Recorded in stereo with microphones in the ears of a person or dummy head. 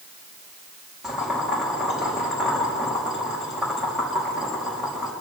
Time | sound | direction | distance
1.0 | boiling | centre (ahead or behind) | 4 m